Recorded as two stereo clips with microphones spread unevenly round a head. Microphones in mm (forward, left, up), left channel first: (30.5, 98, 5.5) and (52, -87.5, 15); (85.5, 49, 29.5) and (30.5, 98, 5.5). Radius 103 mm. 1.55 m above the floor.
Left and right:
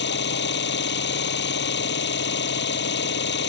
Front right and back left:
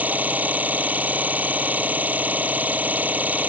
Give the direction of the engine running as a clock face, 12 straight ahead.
10 o'clock.